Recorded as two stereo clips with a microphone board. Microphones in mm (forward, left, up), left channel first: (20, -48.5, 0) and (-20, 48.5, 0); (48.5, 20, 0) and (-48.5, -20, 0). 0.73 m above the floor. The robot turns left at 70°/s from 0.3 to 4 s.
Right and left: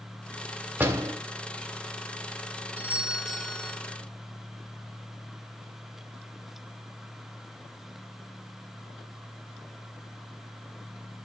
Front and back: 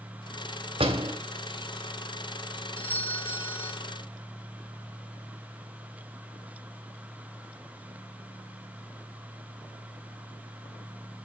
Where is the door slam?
175° right, 1.7 m; by 1.1 s 160° left, 1.7 m.